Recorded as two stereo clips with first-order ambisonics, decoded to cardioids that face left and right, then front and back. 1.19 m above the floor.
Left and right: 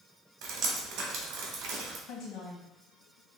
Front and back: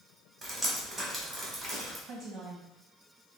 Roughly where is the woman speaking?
Behind left.